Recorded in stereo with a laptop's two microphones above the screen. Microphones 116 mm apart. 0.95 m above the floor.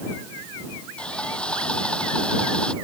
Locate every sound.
1.0 s sawing: 10° left (ahead or behind)